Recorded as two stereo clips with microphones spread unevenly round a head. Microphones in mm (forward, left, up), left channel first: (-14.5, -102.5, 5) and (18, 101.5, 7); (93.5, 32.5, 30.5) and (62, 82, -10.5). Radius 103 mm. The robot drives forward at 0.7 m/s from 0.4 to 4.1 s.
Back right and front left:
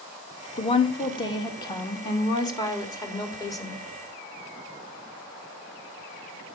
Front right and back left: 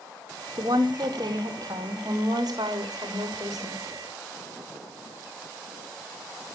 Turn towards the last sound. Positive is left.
turn(degrees=-175)